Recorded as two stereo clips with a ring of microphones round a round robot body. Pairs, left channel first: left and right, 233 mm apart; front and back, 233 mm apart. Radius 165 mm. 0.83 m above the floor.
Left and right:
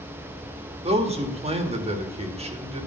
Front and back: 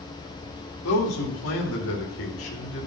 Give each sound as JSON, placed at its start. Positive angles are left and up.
{"t": 0.8, "sound": "a man speaking", "azimuth_deg": -25, "distance_m": 1.7}